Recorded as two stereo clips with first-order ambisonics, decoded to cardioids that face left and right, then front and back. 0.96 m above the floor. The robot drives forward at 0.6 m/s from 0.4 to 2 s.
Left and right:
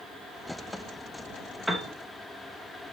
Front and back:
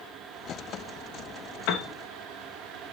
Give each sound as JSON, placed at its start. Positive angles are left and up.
{"t": 1.7, "sound": "a piano", "azimuth_deg": 0, "distance_m": 1.5}